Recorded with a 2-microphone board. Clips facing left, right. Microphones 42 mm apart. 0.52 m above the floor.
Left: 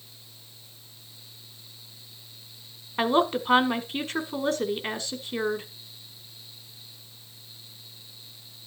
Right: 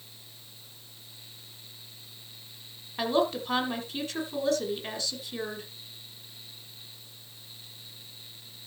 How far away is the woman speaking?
About 1.5 m.